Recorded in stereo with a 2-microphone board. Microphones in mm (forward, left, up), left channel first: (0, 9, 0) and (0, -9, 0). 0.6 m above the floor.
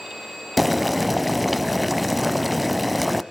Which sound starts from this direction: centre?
Boiling, at 0.6 s.